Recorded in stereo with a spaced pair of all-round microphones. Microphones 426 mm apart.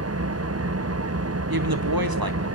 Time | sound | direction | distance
0.0 | an engine running | 35° right (ahead or behind) | 0.7 m
1.5 | a woman speaking | 55° right (ahead or behind) | 1.6 m